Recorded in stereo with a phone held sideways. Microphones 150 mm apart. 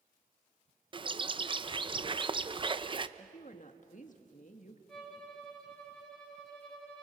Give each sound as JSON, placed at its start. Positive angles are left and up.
{"t": 0.9, "sound": "a bird", "side_deg": -35, "distance_m": 0.6}
{"t": 3.2, "sound": "a woman speaking", "side_deg": 60, "distance_m": 1.8}
{"t": 4.9, "sound": "a violin", "side_deg": 5, "distance_m": 4.5}